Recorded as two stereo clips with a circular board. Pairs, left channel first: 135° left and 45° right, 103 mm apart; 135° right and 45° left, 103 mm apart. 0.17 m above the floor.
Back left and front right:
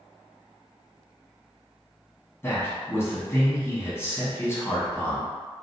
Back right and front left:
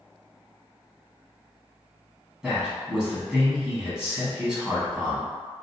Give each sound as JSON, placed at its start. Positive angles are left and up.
{"t": 2.4, "sound": "a man speaking", "azimuth_deg": 120, "distance_m": 1.0}